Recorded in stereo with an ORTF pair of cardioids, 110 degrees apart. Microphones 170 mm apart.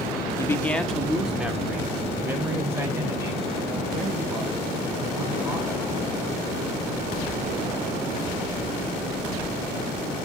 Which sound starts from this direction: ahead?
A man speaking, at 0.4 s.